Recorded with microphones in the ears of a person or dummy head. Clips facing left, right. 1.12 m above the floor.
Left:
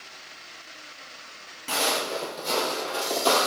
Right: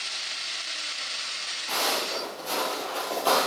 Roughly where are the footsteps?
Left.